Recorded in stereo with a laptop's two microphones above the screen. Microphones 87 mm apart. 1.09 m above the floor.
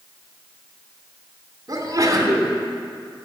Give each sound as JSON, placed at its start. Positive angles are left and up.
{"t": 1.7, "sound": "a sneeze", "side_deg": -40, "distance_m": 3.0}